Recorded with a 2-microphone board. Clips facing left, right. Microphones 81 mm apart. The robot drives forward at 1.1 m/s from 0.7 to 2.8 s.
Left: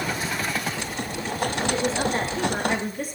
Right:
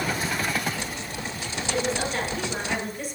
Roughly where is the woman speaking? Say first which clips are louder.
Right 1 dB; left.